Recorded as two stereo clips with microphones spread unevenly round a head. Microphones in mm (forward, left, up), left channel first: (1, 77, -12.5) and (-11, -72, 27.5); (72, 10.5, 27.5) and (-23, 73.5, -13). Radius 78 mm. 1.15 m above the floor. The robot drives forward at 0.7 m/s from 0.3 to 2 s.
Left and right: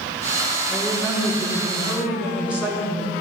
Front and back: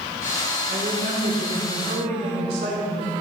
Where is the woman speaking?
Straight behind, 3 m.